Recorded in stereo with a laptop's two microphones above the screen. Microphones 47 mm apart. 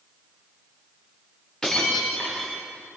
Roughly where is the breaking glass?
Centre.